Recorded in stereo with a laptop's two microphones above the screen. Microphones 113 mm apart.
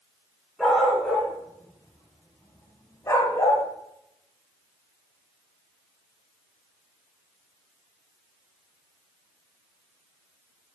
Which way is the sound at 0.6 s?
5° right (ahead or behind).